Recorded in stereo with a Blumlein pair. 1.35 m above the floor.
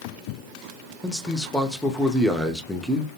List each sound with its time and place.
1.0 s a man speaking: 5° left, 0.6 m